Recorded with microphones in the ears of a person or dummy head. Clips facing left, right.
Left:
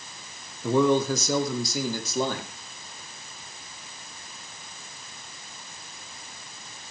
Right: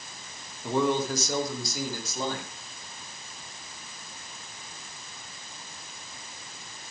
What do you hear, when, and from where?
0.6 s a man speaking: 75° left (ahead or behind), 2.5 m; by 2.5 s 50° left (ahead or behind), 4 m